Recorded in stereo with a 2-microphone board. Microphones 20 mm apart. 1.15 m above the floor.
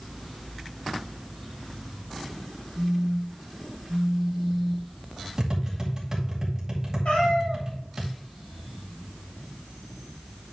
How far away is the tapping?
About 2 m.